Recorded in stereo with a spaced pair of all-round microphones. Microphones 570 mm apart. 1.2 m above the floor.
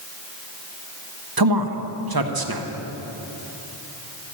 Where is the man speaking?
40° right (ahead or behind), 0.9 m.